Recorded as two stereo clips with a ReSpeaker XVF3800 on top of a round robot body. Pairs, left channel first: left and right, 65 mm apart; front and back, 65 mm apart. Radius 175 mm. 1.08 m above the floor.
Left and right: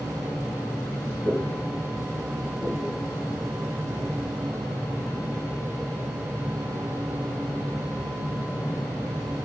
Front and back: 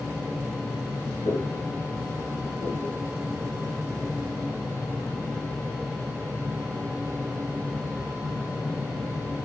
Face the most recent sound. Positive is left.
turn(degrees=40)